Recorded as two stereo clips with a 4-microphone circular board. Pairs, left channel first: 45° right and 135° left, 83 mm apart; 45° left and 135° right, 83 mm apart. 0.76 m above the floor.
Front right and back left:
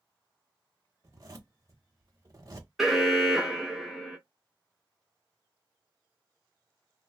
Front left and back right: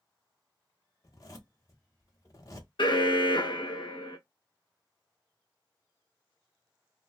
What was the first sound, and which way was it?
A zipper, 90° left.